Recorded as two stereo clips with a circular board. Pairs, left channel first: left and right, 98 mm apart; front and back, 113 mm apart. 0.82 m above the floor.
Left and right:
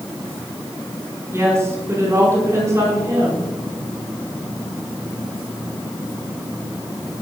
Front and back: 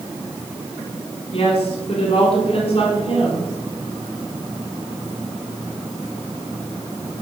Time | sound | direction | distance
1.3 | a woman speaking | 30° right | 7.5 m